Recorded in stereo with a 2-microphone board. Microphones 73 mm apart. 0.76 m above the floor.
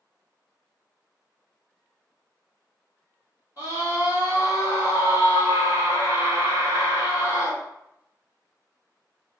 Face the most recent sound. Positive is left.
turn(degrees=-60)  # may be behind; listen again after turning